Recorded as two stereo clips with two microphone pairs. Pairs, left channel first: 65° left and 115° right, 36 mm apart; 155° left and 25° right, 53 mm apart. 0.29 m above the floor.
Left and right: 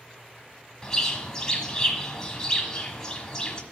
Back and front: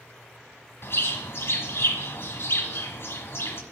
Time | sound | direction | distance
0.8 | a bird | 135° left | 1.2 m